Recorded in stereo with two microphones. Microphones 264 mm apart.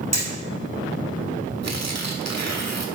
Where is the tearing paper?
80° right, 1.3 m.